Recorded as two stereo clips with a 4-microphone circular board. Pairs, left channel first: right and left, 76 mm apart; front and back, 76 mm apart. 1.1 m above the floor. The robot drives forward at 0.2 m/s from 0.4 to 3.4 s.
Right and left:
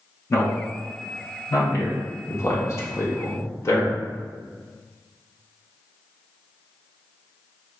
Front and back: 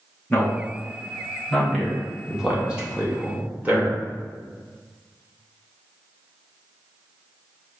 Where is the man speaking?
65° right, 0.9 m; by 4.0 s 120° right, 0.9 m.